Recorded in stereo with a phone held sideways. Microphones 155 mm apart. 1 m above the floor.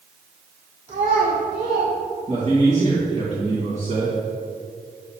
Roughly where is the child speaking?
Right.